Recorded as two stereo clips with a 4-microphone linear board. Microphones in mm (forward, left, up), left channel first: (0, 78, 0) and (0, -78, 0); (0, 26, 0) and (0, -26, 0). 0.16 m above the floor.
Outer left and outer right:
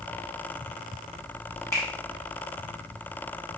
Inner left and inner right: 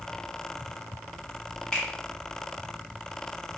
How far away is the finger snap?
About 0.8 m.